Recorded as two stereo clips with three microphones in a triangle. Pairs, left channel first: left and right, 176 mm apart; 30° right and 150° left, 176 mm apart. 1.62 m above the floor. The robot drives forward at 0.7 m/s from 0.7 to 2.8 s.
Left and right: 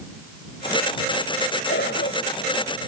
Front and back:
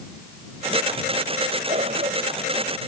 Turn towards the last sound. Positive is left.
turn(degrees=105)